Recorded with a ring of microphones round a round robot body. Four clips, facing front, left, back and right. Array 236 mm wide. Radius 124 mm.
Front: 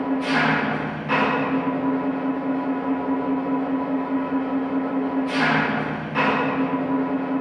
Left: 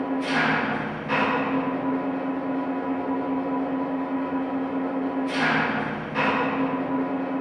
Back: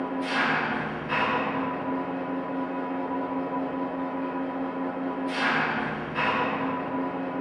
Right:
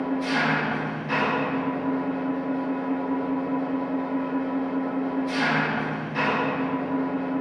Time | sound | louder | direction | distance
0.0 | an engine running | left 1 dB, front 6 dB | 10° left | 1.0 m